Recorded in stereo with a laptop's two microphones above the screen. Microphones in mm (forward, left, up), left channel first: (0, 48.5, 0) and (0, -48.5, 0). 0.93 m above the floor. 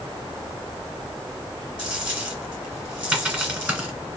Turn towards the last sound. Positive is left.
turn(degrees=-15)  # may be behind; listen again after turning